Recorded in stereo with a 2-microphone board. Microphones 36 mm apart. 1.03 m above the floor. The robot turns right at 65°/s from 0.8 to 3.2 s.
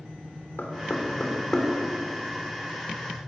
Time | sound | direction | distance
0.6 | knocking | 70° left (ahead or behind) | 3 m